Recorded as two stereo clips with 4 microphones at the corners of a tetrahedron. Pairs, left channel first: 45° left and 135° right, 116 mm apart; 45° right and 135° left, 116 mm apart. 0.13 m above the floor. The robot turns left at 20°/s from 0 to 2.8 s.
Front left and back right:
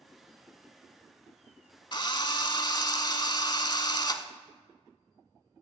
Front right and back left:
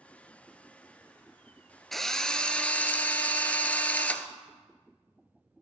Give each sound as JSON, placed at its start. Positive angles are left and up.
{"t": 1.9, "sound": "a drill", "azimuth_deg": 40, "distance_m": 0.6}